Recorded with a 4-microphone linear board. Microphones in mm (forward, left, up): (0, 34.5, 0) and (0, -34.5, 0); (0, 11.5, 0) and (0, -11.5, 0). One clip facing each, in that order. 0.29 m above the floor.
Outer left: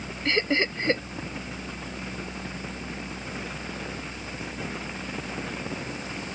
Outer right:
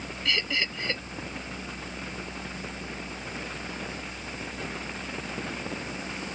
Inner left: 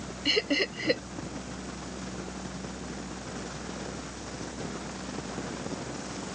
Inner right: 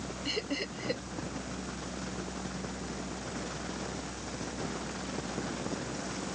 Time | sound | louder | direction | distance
0.2 | laughter | outer left 6 dB, inner left 9 dB | 40° left (ahead or behind) | ?